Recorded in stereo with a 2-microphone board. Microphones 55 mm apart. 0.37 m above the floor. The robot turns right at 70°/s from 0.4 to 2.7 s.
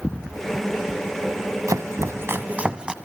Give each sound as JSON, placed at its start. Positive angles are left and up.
{"t": 1.7, "sound": "chopping", "side_deg": -80, "distance_m": 1.0}